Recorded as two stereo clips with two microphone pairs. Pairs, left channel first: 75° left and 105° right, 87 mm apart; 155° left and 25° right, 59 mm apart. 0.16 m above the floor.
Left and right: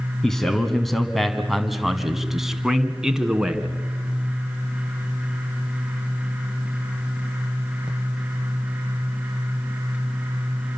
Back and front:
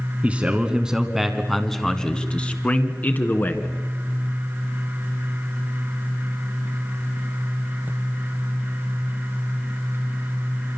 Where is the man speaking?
5° right, 1.6 m; by 3.8 s 175° left, 2 m.